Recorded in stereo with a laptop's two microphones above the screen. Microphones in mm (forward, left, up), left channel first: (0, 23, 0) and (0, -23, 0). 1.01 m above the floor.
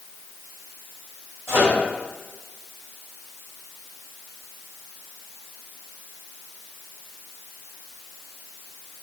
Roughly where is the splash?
I don't hear a splash.